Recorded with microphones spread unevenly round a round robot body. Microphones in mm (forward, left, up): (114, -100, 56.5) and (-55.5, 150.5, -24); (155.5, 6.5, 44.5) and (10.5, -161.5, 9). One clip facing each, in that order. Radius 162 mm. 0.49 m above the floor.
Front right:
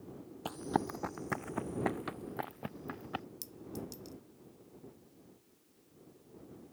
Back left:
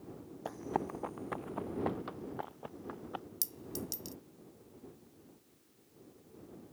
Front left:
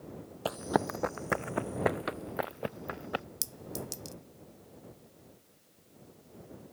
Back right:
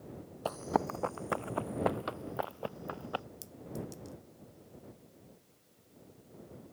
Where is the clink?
65° left.